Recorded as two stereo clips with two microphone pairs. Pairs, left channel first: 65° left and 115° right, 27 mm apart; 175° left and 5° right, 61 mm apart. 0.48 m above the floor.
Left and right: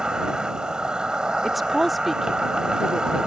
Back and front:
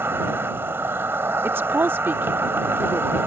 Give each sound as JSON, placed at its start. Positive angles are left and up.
{"t": 0.0, "sound": "an insect", "azimuth_deg": -55}
{"t": 1.4, "sound": "a woman speaking", "azimuth_deg": -25}